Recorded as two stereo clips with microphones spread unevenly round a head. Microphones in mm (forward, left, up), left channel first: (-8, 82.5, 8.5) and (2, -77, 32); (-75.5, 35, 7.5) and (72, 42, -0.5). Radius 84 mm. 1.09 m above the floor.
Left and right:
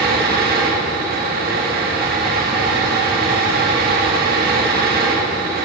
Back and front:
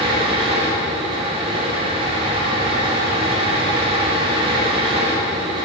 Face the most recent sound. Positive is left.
turn(degrees=-55)